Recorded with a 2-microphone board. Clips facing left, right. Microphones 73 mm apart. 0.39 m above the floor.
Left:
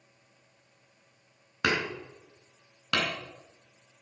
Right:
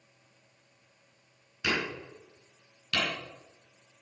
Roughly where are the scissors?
No scissors in this recording.